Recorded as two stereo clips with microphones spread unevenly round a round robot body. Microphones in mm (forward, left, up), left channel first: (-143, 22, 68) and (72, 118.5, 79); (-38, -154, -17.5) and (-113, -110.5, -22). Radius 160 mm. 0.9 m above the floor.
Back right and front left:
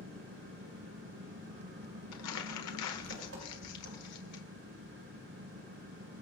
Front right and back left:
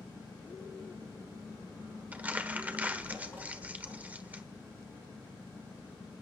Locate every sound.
0.0 s an engine running: 50° left, 5.5 m
2.1 s crumpling: 135° right, 1.3 m